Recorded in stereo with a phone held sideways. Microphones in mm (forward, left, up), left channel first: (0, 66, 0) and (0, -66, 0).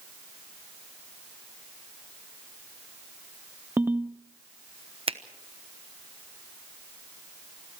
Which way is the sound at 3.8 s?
15° right (ahead or behind).